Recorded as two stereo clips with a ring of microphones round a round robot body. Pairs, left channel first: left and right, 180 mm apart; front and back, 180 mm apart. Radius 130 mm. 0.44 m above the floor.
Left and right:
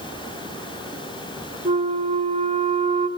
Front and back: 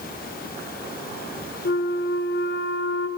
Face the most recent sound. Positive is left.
turn(degrees=-25)